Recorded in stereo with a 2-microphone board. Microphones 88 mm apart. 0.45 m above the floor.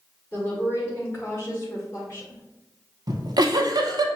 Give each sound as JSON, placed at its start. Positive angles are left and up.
{"t": 0.3, "sound": "a woman speaking", "side_deg": 25, "distance_m": 1.4}
{"t": 3.1, "sound": "a giggle", "side_deg": -55, "distance_m": 0.6}